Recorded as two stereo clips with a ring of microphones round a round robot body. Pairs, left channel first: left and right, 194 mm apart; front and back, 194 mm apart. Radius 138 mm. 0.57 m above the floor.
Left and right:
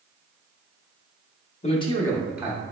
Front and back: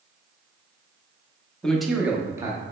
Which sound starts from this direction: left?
A man speaking, at 1.6 s.